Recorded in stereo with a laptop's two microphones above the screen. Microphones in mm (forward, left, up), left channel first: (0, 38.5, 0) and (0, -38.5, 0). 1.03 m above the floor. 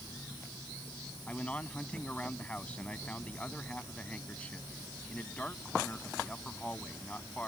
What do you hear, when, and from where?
1.3 s a man speaking: 15° left (ahead or behind)